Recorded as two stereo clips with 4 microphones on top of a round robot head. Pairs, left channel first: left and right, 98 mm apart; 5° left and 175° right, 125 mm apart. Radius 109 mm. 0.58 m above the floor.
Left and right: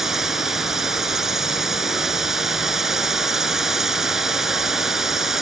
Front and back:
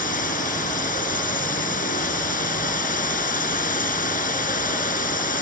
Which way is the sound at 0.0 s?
5° right.